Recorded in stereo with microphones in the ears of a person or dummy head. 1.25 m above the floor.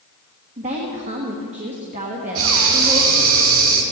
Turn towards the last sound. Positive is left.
turn(degrees=-65)  # may be behind; listen again after turning